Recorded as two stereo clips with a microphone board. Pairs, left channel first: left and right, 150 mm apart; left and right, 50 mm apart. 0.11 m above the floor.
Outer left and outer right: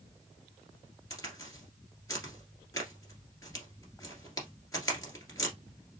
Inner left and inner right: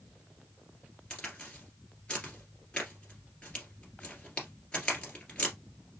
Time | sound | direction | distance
1.1 | a crack | 20° left (ahead or behind) | 1.9 m